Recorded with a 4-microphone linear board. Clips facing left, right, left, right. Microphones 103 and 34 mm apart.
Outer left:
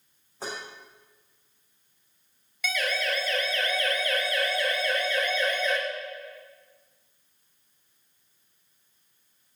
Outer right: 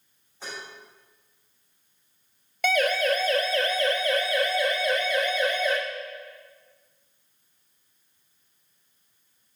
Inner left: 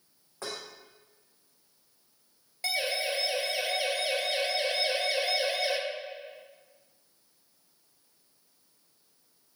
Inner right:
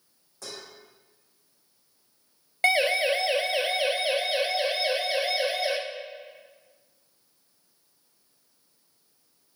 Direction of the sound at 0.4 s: 40° left (ahead or behind).